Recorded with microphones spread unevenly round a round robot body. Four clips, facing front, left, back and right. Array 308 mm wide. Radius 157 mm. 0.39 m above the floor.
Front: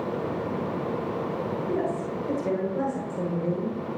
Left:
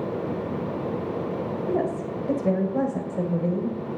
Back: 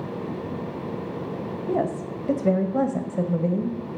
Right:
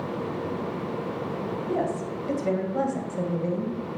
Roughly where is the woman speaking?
Behind.